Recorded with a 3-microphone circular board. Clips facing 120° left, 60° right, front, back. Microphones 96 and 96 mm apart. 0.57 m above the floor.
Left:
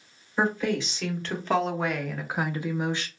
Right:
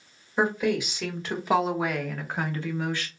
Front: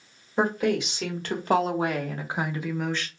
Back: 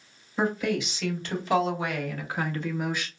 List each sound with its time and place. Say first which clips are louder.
0.4 s a woman speaking: right 1 dB, front 3 dB; 15° left, 1.6 m; by 3.1 s 140° left, 0.6 m